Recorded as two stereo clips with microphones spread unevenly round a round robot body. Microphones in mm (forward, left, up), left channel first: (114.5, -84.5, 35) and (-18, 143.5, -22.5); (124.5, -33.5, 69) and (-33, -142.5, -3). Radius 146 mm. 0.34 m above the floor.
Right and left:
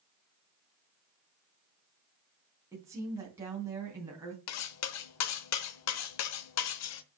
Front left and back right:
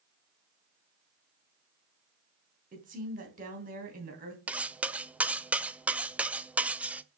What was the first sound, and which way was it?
A woman speaking, 165° right.